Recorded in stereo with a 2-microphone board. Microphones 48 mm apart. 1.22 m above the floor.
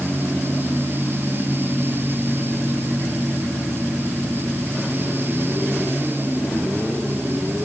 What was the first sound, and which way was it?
Only background noise.